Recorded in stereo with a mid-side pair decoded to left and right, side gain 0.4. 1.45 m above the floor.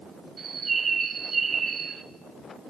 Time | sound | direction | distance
0.4 | a bird | 45° right | 1.4 m